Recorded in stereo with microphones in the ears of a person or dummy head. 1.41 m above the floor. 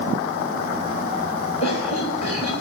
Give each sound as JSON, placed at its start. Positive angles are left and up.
{"t": 1.6, "sound": "a cough", "side_deg": 35, "distance_m": 7.0}